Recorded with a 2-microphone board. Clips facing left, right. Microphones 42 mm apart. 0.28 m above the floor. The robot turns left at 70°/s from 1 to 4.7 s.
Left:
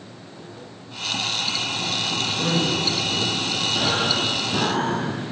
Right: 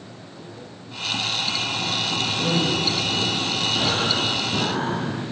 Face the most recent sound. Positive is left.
turn(degrees=115)